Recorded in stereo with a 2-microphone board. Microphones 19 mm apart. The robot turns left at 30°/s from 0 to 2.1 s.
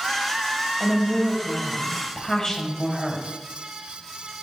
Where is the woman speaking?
Straight behind, 1.5 m; by 3.2 s 140° left, 1.5 m.